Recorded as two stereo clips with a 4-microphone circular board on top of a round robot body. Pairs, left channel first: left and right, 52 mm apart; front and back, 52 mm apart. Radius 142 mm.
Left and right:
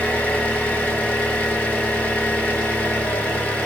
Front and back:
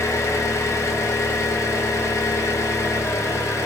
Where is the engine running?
20° left, 1.0 m.